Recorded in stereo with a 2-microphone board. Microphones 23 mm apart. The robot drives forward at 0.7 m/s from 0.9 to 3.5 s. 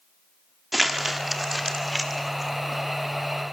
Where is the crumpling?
10° right (ahead or behind), 1.8 m; by 2.5 s 5° right (ahead or behind), 3 m.